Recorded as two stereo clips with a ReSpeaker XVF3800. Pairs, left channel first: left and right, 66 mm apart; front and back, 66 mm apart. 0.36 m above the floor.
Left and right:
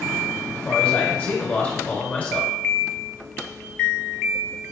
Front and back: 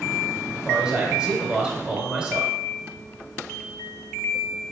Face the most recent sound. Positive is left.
turn(degrees=120)